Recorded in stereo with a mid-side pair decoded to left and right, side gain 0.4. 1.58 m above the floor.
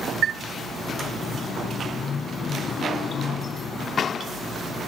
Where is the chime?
60° right, 0.5 m.